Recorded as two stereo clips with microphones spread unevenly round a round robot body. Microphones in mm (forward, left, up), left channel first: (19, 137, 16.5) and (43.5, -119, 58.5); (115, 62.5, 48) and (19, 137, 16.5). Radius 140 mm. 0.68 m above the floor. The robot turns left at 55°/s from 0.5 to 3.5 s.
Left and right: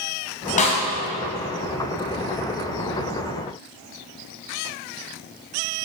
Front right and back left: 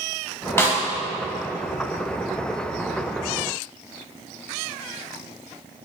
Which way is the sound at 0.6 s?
35° left.